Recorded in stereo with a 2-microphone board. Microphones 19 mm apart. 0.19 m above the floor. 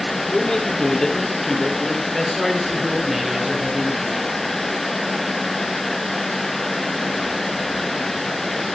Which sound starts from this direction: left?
A man speaking, at 0.2 s.